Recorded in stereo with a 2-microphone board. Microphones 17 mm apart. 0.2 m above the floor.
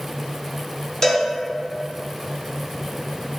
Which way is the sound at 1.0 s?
25° left (ahead or behind).